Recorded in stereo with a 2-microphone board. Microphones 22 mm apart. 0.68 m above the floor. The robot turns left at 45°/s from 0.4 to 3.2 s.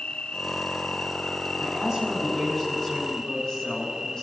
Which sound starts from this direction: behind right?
A woman speaking, at 1.6 s.